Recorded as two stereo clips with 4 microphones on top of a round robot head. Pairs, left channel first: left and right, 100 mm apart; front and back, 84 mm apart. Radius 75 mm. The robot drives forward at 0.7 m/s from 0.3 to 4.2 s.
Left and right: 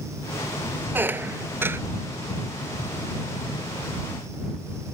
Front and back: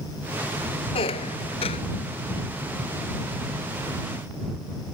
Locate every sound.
0.9 s a squeak: 20° right